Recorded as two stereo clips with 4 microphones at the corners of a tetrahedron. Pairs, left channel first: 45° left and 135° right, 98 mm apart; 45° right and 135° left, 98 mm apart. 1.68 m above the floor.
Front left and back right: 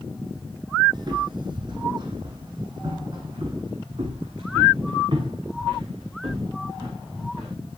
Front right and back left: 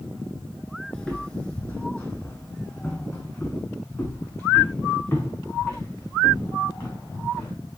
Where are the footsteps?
115° right, 2.5 m; by 7.5 s 95° right, 7 m.